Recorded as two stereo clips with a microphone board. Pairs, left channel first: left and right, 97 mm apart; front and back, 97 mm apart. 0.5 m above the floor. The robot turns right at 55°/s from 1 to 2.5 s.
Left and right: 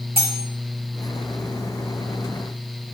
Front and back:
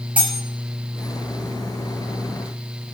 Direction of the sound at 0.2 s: 105° right.